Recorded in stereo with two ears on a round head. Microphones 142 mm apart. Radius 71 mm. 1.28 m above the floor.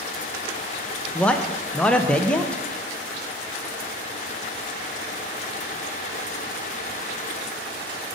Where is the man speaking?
5° left (ahead or behind), 0.6 m.